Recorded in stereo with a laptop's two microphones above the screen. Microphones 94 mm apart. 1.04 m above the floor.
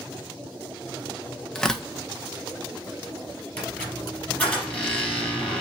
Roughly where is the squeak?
Centre.